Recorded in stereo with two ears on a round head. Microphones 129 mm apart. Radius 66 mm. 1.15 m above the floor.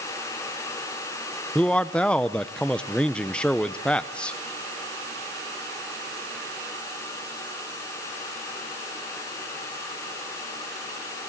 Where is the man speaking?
5° left (ahead or behind), 0.7 m.